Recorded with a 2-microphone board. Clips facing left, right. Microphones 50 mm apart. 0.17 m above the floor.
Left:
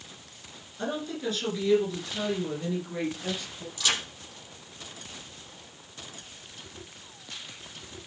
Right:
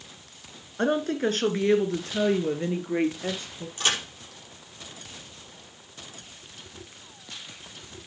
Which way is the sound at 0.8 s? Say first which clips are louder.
Right 7 dB; 55° right (ahead or behind).